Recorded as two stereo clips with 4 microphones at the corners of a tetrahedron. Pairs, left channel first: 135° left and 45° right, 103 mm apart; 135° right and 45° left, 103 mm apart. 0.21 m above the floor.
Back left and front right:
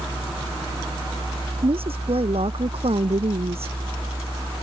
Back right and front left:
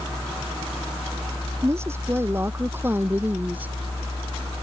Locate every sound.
1.6 s a woman speaking: 20° right; by 3.8 s 30° right